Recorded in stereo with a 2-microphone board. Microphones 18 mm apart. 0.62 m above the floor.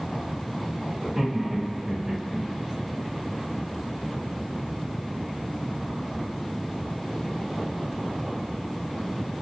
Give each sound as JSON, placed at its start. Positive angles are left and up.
{"t": 1.0, "sound": "laughter", "side_deg": -25, "distance_m": 1.2}